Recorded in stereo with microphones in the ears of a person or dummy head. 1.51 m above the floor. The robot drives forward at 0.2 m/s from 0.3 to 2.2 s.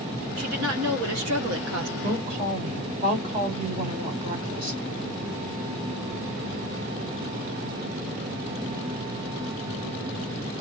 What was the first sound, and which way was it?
A woman speaking, 85° right.